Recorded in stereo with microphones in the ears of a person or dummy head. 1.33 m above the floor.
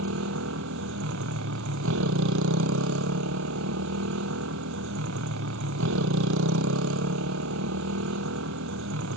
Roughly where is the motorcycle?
Right.